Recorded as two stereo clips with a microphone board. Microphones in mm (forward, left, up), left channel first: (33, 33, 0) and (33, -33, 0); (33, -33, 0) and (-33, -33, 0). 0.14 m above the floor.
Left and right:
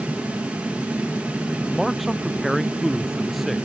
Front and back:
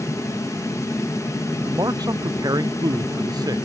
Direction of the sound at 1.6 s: Straight behind.